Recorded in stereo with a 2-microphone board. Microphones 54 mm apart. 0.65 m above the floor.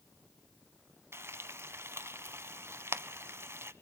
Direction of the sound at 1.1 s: 50° right (ahead or behind).